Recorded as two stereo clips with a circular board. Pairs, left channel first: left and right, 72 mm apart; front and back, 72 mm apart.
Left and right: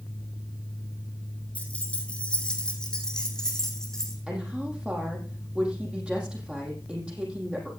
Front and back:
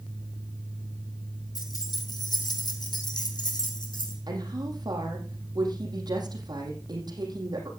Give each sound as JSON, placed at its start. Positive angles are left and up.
{"t": 1.6, "sound": "keys jangling", "azimuth_deg": 20, "distance_m": 3.0}
{"t": 4.3, "sound": "a woman speaking", "azimuth_deg": -165, "distance_m": 5.0}